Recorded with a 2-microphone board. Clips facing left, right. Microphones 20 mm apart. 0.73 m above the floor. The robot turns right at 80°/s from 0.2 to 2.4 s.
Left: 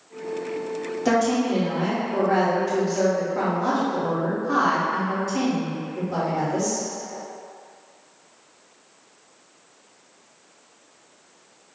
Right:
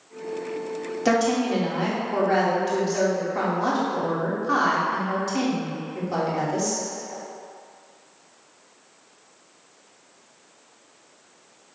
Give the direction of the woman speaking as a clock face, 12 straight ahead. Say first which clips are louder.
Even; 5 o'clock.